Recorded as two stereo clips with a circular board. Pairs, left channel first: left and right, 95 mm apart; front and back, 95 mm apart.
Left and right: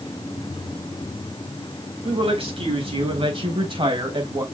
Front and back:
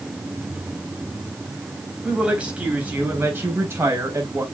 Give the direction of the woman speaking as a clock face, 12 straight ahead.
3 o'clock.